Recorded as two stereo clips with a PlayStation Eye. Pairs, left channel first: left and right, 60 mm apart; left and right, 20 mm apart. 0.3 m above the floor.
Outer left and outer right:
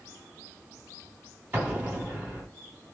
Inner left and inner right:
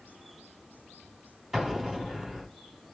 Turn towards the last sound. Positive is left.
turn(degrees=-25)  # may be behind; listen again after turning